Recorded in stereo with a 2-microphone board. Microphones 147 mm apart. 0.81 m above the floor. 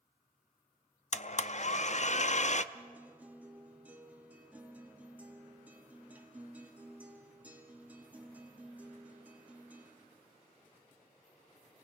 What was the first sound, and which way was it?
A blender, 55° left (ahead or behind).